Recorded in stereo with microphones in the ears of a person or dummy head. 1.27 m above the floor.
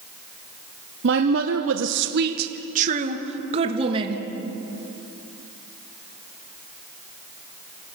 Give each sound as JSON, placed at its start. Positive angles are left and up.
{"t": 1.0, "sound": "a woman speaking", "side_deg": -55, "distance_m": 1.0}